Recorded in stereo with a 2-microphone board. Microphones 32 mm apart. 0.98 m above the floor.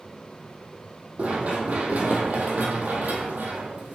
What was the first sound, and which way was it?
Running footsteps, 45° right (ahead or behind).